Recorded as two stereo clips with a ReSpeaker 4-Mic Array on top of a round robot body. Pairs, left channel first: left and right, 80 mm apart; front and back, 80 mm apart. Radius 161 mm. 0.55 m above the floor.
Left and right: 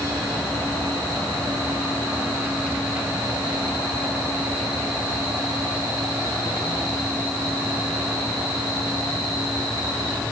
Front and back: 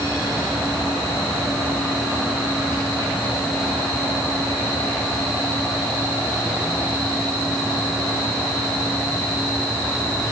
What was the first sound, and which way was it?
Only background noise.